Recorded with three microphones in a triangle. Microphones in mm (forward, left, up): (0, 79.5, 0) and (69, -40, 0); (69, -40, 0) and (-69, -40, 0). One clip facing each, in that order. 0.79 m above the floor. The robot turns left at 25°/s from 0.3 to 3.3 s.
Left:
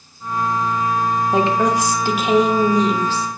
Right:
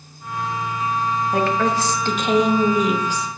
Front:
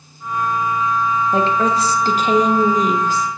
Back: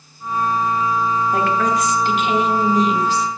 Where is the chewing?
No chewing in this recording.